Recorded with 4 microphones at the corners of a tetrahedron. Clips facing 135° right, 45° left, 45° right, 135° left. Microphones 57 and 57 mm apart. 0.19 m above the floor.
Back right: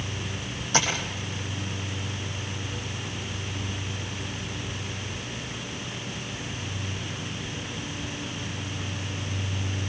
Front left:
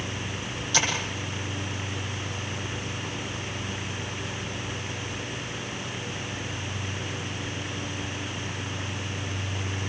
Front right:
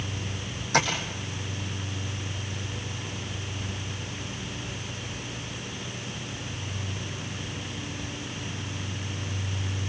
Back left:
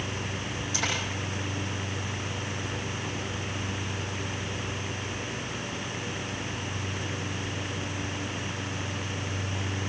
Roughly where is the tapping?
Right.